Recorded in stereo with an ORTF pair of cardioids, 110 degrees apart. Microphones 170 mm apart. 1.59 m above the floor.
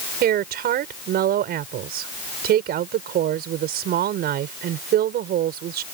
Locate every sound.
0.2 s a woman speaking: 65° right